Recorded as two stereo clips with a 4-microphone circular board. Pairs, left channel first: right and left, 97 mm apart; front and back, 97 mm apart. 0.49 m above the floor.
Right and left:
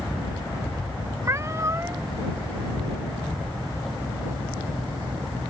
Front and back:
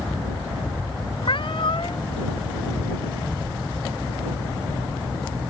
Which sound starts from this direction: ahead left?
A cat meowing, at 1.2 s.